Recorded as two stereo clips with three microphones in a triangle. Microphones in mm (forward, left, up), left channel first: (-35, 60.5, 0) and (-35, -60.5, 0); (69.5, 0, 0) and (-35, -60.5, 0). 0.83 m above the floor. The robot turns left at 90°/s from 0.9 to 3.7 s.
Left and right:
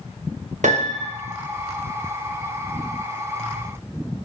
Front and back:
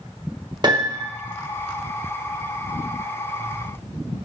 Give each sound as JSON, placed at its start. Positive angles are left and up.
{"t": 0.6, "sound": "a piano", "azimuth_deg": -95, "distance_m": 0.9}